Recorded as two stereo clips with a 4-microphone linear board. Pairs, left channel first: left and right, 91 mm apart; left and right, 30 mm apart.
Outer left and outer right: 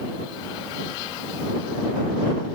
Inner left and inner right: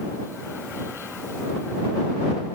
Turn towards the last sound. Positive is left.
No sound to turn to.